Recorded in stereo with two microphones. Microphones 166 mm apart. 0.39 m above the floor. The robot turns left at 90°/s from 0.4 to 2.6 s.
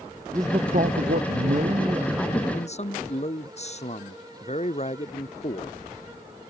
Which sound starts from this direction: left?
A man speaking, at 2.5 s.